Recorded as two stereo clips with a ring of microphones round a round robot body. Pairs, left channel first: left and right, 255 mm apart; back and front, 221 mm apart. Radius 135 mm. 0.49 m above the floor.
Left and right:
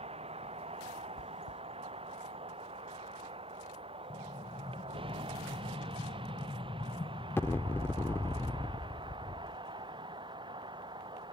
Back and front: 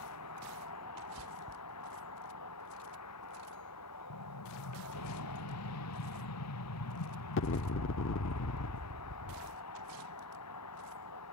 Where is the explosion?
170° left.